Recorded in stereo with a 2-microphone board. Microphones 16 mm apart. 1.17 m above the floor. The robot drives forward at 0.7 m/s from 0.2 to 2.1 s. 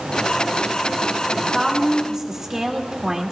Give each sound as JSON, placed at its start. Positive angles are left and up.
{"t": 1.3, "sound": "a woman speaking", "side_deg": -30, "distance_m": 2.5}